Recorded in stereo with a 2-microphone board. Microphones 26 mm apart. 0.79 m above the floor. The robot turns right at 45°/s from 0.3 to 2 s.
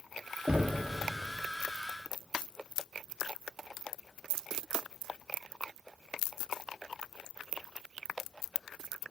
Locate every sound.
0.5 s knocking: 65° right (ahead or behind), 1.1 m; by 0.9 s 60° right (ahead or behind), 1.1 m